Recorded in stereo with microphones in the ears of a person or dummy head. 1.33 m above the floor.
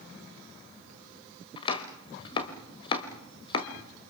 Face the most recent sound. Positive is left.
turn(degrees=35)  # may be behind; listen again after turning